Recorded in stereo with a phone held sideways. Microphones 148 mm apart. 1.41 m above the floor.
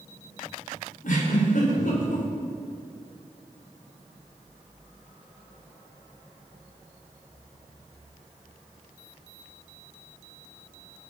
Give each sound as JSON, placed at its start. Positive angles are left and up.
{"t": 1.0, "sound": "a giggle", "side_deg": 65, "distance_m": 4.5}